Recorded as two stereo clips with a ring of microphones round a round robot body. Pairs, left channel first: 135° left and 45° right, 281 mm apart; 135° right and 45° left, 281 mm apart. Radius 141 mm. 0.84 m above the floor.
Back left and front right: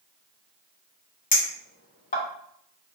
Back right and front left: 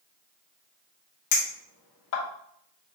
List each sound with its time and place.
1.3 s a clink: 160° right, 1.5 m